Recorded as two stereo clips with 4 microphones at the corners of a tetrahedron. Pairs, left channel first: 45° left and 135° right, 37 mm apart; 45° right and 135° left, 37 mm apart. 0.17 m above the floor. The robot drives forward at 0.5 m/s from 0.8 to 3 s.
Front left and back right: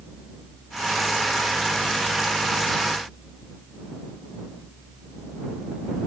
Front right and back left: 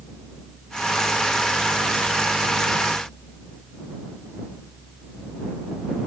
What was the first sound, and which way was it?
Only background noise.